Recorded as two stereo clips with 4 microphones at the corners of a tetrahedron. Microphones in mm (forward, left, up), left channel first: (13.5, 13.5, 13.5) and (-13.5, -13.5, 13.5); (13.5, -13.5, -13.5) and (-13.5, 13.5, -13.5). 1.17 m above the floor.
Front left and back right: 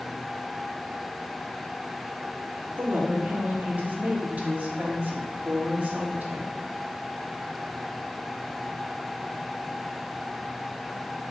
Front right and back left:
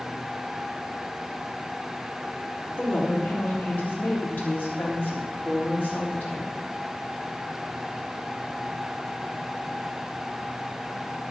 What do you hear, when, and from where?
2.8 s a woman speaking: 85° right, 3.5 m